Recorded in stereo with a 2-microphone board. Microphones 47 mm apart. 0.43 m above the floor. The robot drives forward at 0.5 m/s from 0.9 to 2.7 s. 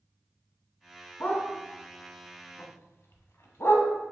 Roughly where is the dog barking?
Left.